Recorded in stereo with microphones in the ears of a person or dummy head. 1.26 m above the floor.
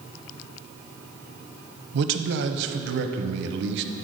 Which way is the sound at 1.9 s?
65° right (ahead or behind).